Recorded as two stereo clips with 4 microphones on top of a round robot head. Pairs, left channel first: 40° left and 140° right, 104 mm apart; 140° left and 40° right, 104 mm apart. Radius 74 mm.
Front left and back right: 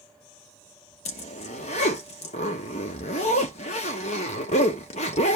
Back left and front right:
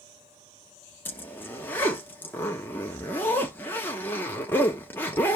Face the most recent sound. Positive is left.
turn(degrees=65)